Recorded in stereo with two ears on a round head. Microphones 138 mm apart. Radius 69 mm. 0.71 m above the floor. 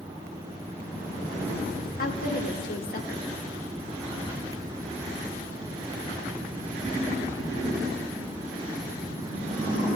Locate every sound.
2.0 s a woman speaking: 60° left (ahead or behind), 1.7 m